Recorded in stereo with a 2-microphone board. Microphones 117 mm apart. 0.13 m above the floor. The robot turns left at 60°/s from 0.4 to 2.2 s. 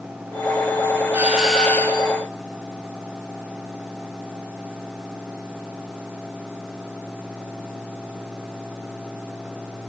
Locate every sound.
1.1 s a doorbell: 160° right, 5 m; by 2.1 s 140° left, 5 m